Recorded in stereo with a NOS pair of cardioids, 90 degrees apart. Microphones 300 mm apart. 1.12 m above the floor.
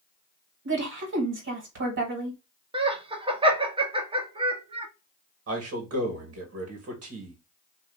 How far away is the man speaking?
About 1.7 m.